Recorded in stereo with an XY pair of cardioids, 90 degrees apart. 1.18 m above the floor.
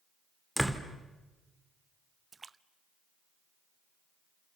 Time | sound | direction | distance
0.6 | a door slam | 5° right | 2.5 m
2.3 | a splash | 35° right | 0.7 m